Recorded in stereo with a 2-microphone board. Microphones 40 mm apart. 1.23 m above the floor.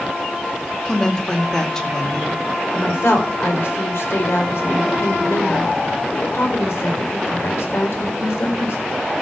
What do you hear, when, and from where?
0.8 s a woman speaking: 15° left (ahead or behind), 2.5 m
2.7 s a woman speaking: 90° left, 4.5 m